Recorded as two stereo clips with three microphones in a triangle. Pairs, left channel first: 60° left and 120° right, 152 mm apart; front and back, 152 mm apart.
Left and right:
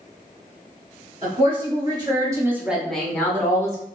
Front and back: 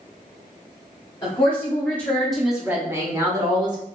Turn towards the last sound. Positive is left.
turn(degrees=125)